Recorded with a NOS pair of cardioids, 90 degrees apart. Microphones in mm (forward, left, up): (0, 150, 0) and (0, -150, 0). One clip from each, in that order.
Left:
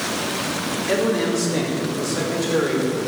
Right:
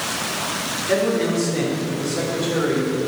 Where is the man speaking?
50° left, 3 m.